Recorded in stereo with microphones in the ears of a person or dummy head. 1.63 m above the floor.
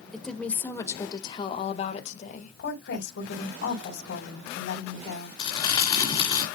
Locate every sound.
0.1 s a woman speaking: 5° left (ahead or behind), 1.7 m; by 2.5 s 50° left (ahead or behind), 2 m
2.6 s a woman speaking: 75° left (ahead or behind), 3.5 m
5.4 s crumpling: 25° left (ahead or behind), 2 m